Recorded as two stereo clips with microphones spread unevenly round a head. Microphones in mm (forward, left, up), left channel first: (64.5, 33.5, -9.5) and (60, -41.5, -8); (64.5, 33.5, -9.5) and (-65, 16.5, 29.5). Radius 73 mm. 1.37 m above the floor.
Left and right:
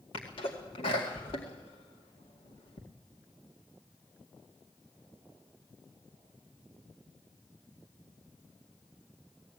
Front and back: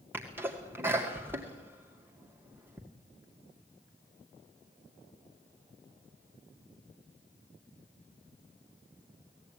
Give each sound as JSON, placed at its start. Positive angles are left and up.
{"t": 0.1, "sound": "a sneeze", "azimuth_deg": 110, "distance_m": 2.0}